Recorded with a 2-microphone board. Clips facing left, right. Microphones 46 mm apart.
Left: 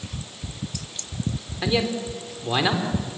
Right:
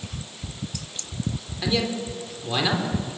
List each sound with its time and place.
1.6 s a man speaking: 20° left (ahead or behind), 3 m